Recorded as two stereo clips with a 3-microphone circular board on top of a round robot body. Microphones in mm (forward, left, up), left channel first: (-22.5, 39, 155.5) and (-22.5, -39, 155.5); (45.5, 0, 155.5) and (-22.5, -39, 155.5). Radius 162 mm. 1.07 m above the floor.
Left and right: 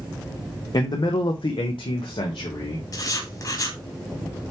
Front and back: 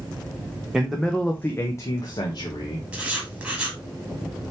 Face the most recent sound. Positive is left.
turn(degrees=135)